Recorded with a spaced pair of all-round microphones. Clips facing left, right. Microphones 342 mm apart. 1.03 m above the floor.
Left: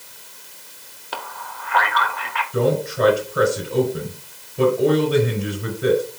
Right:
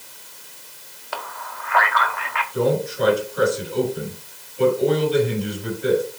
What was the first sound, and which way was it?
A man speaking, 45° left (ahead or behind).